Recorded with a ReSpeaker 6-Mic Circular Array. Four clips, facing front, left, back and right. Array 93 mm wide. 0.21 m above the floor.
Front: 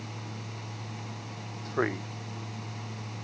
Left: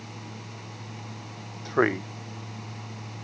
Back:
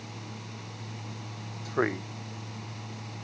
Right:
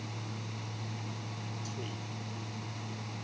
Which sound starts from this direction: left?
A man speaking, at 1.6 s.